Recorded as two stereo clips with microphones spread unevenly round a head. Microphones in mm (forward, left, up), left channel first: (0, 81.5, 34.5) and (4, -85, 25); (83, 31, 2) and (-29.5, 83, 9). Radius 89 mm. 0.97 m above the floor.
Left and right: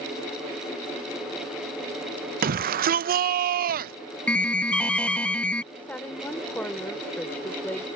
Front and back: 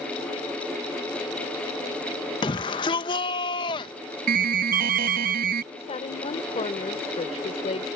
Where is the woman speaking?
10° left.